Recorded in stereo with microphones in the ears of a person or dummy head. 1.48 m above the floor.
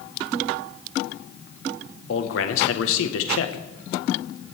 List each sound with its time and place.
2.1 s a man speaking: 75° left (ahead or behind), 1.6 m